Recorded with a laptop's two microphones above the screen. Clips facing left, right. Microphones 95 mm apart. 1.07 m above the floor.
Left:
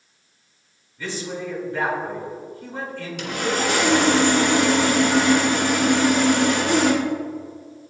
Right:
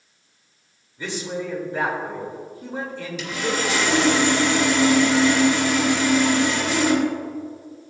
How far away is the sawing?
About 1.7 m.